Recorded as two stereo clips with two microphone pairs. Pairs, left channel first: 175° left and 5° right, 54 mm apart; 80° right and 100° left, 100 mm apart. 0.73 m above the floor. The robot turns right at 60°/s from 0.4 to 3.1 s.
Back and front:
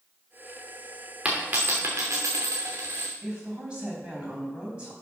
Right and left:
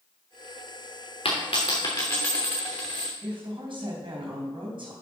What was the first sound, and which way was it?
A dropped coin, 70° right.